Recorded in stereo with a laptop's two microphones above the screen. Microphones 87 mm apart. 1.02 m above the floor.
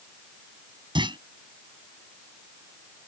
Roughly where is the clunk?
Right.